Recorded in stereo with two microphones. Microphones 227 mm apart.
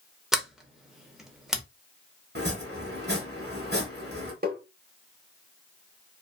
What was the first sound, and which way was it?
A sliding door, centre (ahead or behind).